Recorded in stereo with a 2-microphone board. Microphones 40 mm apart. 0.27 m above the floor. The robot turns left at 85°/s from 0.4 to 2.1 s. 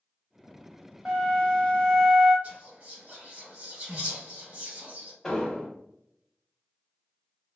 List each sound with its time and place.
1.1 s a flute: 5° left (ahead or behind), 1.5 m; by 2.3 s 20° left (ahead or behind), 1.5 m
2.4 s whispering: 35° right (ahead or behind), 1.8 m
5.2 s an explosion: 15° left (ahead or behind), 0.8 m